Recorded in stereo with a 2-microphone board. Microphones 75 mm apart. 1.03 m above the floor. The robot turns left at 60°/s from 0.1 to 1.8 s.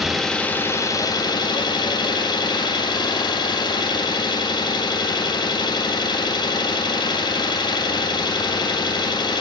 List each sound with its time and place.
0.0 s an engine running: straight behind, 0.9 m; by 9.4 s 80° left, 0.9 m